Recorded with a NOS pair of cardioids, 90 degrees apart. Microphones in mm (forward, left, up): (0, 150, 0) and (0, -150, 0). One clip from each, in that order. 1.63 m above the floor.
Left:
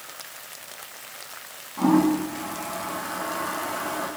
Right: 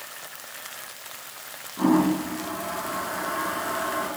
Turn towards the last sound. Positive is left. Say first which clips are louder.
# left 1 dB
turn(degrees=10)